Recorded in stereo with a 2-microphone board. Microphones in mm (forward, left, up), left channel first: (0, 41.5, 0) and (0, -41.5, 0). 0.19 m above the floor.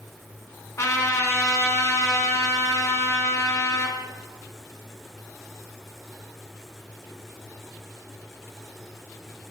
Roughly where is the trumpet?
Left.